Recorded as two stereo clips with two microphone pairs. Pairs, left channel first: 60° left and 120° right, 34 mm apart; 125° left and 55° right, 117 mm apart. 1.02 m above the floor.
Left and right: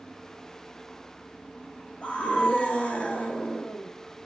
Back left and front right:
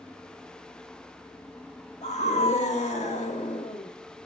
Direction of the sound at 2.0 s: 115° left.